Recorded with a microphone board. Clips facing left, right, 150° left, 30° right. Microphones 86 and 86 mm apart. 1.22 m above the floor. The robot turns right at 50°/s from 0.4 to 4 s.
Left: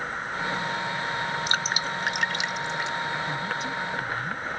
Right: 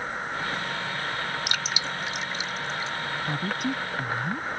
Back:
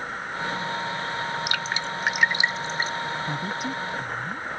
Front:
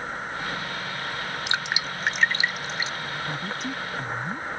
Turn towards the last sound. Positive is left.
turn(degrees=-105)